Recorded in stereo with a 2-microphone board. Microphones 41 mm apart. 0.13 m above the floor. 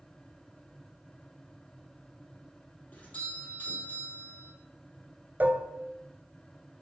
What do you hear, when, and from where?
2.9 s a doorbell: 45° left (ahead or behind), 4.5 m
5.4 s dishes clattering: 45° right (ahead or behind), 1.2 m